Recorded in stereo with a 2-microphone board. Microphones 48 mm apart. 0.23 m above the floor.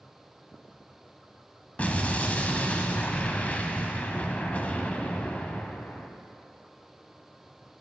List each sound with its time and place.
1.8 s an explosion: 30° left (ahead or behind), 0.6 m